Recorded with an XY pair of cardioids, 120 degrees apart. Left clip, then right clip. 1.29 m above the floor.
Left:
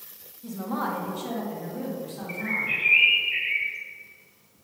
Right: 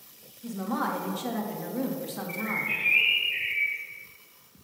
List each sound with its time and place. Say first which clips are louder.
0.4 s a woman speaking: even; 10° right, 1.6 m; by 2.7 s 65° right, 1.7 m
2.3 s a bird: left 3 dB; 20° left, 1.3 m